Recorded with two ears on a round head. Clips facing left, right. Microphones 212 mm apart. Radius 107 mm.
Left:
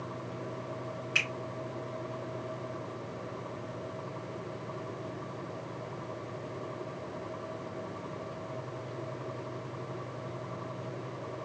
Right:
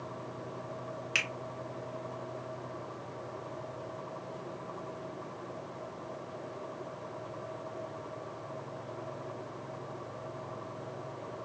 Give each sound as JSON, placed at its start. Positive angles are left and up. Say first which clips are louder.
{"t": 1.1, "sound": "a finger snap", "louder": "left 2 dB", "side_deg": -45, "distance_m": 1.8}